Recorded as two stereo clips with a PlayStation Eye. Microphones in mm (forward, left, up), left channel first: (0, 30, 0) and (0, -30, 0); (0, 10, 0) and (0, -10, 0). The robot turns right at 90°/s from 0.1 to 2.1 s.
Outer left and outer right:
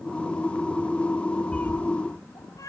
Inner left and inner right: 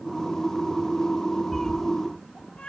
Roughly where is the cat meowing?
Centre.